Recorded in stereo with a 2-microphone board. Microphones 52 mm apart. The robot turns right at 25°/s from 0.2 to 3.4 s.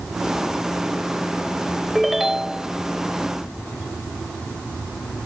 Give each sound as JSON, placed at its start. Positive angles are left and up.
{"t": 1.9, "sound": "a ringtone", "side_deg": 0}